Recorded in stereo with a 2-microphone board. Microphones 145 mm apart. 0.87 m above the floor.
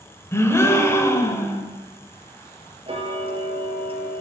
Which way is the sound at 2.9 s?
35° right (ahead or behind).